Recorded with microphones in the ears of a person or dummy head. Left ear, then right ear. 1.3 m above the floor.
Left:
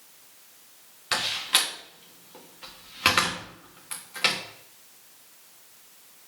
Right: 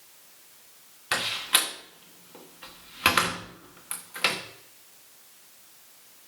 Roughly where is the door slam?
Centre.